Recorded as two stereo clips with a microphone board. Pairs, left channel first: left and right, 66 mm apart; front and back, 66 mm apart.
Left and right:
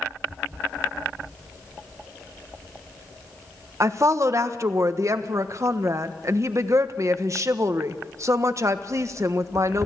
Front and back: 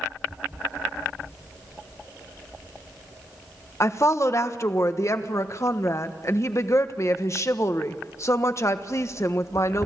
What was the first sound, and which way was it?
A woman speaking, 45° right.